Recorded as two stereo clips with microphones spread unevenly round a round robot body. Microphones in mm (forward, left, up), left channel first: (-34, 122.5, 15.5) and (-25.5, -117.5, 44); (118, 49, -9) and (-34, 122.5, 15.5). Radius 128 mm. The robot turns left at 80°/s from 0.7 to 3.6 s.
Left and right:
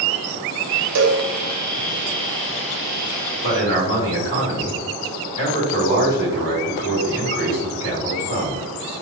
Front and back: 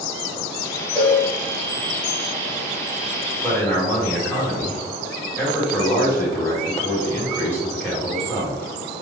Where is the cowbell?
105° right, 0.7 m; by 1.2 s 130° right, 0.7 m.